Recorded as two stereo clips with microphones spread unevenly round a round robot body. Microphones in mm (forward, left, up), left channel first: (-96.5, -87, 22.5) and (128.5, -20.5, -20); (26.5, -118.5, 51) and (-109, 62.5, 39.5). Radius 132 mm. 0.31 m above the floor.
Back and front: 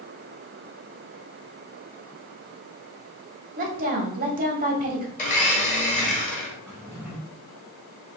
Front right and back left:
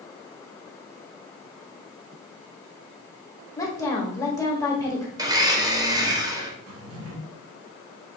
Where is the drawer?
105° left, 1.6 m.